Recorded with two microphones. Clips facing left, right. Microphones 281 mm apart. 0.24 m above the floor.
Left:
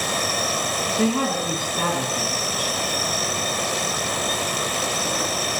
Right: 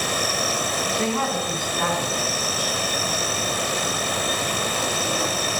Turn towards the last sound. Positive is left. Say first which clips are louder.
# left 5 dB
turn(degrees=40)  # may be behind; listen again after turning